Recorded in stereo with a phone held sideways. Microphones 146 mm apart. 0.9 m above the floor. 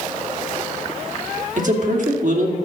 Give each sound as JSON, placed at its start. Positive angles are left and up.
{"t": 1.6, "sound": "a man speaking", "side_deg": -60, "distance_m": 2.0}